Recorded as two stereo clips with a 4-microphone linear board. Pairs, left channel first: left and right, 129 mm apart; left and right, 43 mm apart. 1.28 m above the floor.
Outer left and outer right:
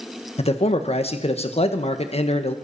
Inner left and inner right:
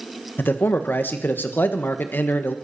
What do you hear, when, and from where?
0.4 s a man speaking: 55° left (ahead or behind), 1.4 m